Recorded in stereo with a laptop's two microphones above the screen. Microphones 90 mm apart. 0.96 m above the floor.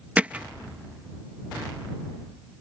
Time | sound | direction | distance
0.2 | hammering | 15° right (ahead or behind) | ?